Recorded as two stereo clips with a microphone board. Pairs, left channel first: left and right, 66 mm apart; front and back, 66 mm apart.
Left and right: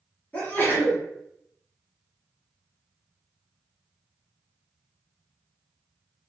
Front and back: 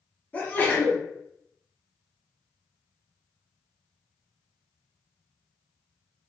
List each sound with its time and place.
0.3 s a sneeze: 45° left, 1.2 m